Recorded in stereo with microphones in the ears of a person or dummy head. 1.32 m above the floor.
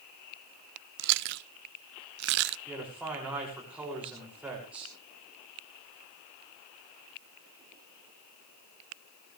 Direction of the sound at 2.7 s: Centre (ahead or behind).